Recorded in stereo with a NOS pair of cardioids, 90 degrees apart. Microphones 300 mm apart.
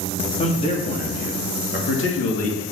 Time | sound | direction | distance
0.4 | a man speaking | 20° left | 3 m